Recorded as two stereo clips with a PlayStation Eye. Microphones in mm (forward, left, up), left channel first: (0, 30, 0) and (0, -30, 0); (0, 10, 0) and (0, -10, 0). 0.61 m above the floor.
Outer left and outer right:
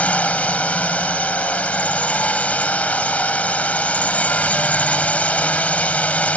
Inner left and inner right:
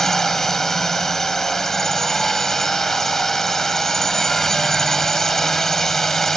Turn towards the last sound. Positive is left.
turn(degrees=25)  # may be behind; listen again after turning